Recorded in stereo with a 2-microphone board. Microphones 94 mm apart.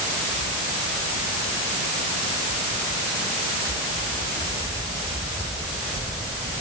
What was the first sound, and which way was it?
Only background noise.